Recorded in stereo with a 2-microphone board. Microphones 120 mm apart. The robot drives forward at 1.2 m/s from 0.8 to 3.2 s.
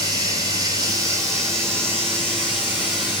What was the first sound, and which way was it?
Running water, 35° right (ahead or behind).